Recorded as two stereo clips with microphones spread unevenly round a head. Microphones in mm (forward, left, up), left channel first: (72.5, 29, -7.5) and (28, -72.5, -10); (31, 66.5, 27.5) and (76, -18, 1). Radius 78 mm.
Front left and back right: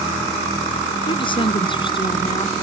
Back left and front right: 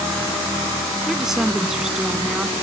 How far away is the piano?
I don't hear a piano.